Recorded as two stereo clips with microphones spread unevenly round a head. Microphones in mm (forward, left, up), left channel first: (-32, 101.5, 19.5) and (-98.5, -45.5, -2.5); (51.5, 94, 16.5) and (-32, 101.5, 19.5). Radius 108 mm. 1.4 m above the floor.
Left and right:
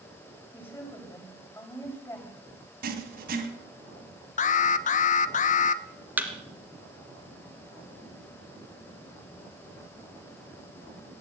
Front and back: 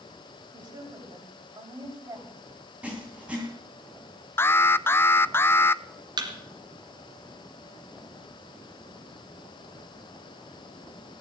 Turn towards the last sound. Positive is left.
turn(degrees=165)